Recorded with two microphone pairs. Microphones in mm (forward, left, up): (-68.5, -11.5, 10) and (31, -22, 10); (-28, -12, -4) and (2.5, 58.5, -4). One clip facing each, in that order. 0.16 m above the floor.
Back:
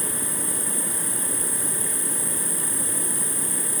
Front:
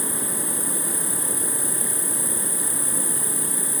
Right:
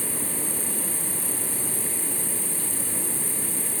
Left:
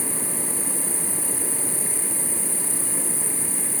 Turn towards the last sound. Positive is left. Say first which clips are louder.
# front 2 dB, left 2 dB
turn(degrees=15)